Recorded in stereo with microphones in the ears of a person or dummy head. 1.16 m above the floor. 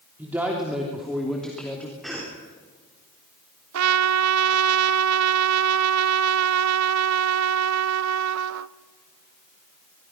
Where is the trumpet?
90° right, 0.5 m.